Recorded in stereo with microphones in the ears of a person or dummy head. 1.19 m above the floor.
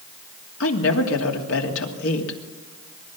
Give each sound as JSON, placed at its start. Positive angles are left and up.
{"t": 0.6, "sound": "a woman speaking", "side_deg": 75, "distance_m": 2.5}